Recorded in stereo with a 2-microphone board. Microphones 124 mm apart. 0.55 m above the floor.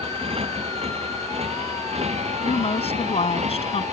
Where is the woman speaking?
65° left (ahead or behind).